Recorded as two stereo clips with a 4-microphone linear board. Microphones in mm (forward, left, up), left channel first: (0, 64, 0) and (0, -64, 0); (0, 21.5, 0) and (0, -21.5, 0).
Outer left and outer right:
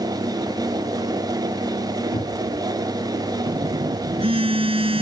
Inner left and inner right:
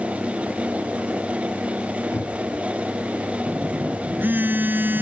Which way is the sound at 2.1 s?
60° left (ahead or behind).